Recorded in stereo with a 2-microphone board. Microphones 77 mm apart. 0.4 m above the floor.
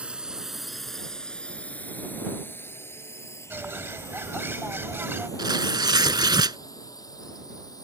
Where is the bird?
30° right (ahead or behind).